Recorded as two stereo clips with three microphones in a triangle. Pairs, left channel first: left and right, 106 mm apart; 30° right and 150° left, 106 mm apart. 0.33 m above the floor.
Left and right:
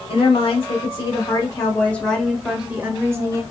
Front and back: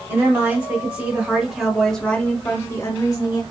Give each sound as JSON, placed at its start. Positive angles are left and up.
{"t": 0.1, "sound": "a woman speaking", "azimuth_deg": 100, "distance_m": 1.8}